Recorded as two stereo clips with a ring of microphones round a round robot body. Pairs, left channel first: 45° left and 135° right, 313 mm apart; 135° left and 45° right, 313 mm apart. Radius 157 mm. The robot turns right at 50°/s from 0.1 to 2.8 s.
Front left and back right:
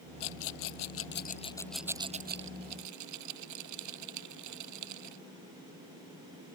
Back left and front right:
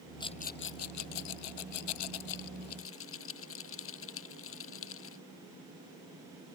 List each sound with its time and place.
0.2 s a rattle: 55° left; by 5.2 s 175° right